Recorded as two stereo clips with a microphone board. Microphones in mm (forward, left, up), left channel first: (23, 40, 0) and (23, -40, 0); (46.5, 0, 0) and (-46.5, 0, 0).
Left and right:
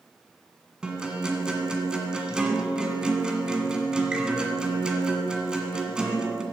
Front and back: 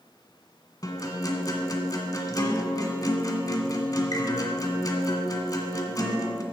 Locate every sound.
0.8 s a guitar: 15° right, 1.8 m